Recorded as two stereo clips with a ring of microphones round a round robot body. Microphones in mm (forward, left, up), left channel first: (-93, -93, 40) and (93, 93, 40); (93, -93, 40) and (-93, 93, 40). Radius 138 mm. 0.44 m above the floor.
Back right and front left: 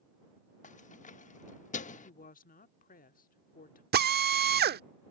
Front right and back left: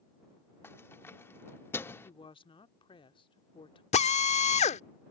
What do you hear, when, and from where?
0.6 s keys jangling: 115° right
2.0 s a woman speaking: 105° right
3.9 s a drill: 10° left